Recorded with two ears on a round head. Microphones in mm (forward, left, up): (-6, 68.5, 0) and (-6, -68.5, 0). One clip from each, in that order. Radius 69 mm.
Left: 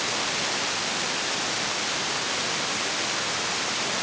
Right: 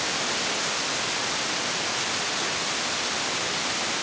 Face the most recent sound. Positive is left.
No sound to turn to.